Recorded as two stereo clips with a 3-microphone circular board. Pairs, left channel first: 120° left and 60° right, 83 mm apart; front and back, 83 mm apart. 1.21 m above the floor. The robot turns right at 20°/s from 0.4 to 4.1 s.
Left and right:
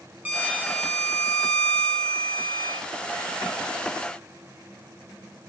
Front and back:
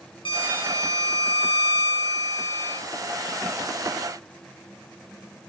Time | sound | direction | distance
0.2 | a violin | 10° left | 2.5 m